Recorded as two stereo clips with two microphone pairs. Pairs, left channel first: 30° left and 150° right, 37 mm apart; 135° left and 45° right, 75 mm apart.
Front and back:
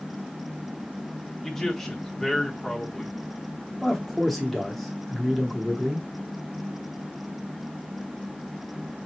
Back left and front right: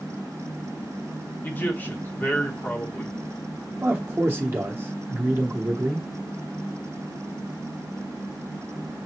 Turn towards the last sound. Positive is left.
turn(degrees=-45)